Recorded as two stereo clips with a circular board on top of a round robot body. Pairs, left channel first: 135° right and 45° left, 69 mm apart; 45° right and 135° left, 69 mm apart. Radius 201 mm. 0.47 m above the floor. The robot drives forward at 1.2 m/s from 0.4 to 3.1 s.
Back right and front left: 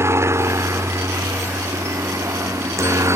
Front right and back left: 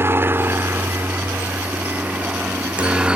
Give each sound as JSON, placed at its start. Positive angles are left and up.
{"t": 0.0, "sound": "a helicopter", "azimuth_deg": 90}